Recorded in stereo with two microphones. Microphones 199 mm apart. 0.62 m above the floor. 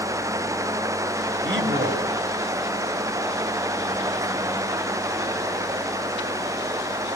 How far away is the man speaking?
About 3 m.